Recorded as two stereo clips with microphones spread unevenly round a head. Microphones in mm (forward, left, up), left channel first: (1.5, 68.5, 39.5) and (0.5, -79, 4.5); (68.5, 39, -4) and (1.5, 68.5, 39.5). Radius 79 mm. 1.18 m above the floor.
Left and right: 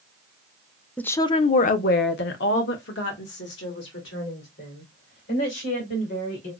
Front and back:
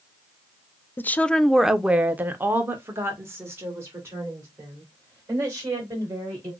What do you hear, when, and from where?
1.0 s a woman speaking: straight ahead, 0.5 m; by 6.5 s 105° left, 3.5 m